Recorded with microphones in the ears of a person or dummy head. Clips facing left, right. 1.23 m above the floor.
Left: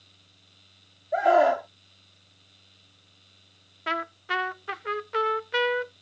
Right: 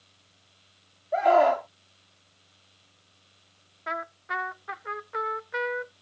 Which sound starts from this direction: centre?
A scream, at 1.1 s.